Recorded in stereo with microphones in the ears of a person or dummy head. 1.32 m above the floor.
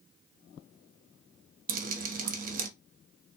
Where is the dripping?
45° right (ahead or behind), 0.7 m.